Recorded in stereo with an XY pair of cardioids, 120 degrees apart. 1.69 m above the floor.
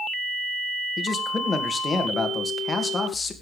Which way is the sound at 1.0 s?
25° left.